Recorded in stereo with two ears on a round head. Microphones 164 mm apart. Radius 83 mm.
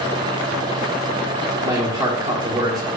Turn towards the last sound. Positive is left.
turn(degrees=-15)  # may be behind; listen again after turning